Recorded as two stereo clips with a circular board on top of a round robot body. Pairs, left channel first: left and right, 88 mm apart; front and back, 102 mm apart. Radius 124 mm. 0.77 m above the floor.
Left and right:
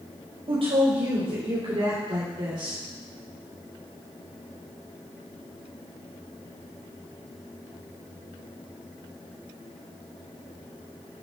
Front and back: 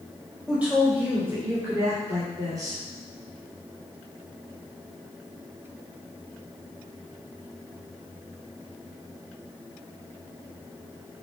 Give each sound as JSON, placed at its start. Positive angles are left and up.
{"t": 0.5, "sound": "a woman speaking", "azimuth_deg": -100, "distance_m": 4.0}